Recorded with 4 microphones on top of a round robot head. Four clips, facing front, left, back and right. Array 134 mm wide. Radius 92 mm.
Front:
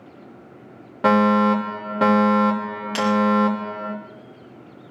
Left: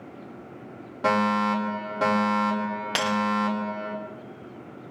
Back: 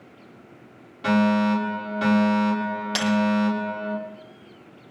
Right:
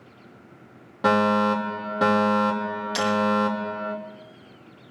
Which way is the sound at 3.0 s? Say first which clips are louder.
Right 3 dB, front 4 dB; 110° left.